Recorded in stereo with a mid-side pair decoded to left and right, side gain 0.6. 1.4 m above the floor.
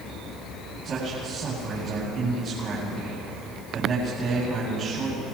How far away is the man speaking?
About 9.5 m.